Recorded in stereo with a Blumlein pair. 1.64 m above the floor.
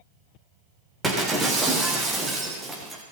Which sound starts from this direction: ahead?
Breaking glass, at 1.0 s.